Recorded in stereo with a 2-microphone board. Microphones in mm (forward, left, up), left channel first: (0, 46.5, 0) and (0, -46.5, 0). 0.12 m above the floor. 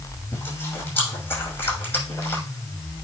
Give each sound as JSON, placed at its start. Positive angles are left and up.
{"t": 0.3, "sound": "chewing", "side_deg": 25, "distance_m": 6.0}